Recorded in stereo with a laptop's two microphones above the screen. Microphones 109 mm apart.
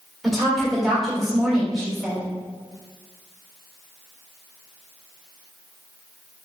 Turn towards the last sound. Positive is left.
turn(degrees=0)  # may be behind; listen again after turning